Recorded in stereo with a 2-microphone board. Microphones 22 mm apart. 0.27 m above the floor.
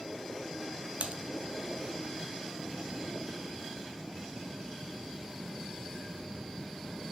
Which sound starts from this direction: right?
Typing on a keyboard, at 1.0 s.